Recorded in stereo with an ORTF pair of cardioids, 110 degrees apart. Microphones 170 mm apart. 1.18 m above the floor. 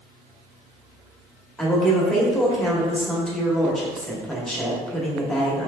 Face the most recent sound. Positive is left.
turn(degrees=5)